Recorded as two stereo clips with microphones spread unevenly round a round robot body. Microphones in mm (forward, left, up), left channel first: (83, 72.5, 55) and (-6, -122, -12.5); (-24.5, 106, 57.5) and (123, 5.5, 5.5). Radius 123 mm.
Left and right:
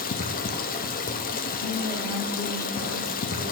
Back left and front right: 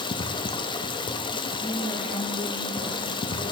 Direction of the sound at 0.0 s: 80° left.